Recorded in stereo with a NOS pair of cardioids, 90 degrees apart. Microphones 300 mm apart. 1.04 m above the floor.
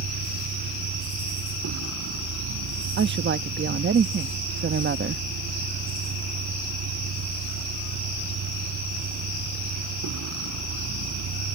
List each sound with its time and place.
0.0 s a vehicle: 60° right
3.0 s a woman speaking: 35° right